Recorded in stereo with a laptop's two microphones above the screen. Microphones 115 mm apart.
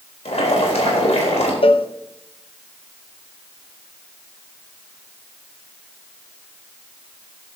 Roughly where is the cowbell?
Left.